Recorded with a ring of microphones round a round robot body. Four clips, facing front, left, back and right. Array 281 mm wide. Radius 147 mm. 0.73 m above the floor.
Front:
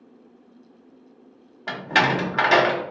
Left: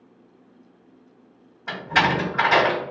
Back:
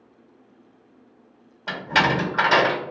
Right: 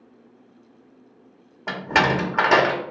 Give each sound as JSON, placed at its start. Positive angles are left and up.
{"t": 1.7, "sound": "a door slam", "azimuth_deg": -75, "distance_m": 1.1}